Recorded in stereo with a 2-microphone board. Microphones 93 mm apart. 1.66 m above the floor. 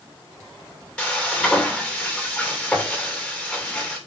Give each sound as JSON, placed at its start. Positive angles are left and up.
{"t": 1.0, "sound": "frying", "side_deg": 15, "distance_m": 2.5}